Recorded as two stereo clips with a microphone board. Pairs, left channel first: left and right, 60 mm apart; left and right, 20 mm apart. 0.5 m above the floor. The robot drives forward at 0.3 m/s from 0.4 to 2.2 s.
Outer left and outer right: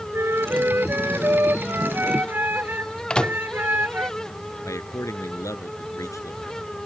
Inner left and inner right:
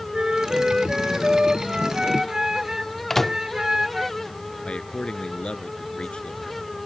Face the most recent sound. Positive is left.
turn(degrees=60)  # may be behind; listen again after turning